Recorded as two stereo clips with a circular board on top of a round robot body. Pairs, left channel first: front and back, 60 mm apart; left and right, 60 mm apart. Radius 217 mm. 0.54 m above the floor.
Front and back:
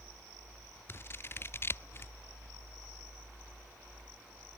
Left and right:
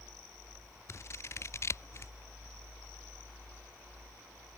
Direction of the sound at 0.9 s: 50° left.